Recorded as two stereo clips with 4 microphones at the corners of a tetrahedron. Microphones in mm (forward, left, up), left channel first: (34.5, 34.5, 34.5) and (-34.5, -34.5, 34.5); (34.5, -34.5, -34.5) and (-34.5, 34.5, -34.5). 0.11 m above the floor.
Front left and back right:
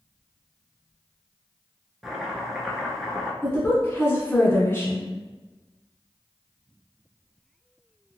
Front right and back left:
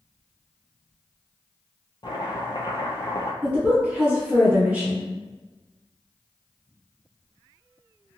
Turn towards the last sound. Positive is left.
turn(degrees=75)